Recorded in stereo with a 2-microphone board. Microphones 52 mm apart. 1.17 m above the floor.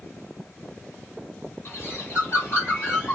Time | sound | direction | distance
1.6 | a bird | 45° left (ahead or behind) | 4.5 m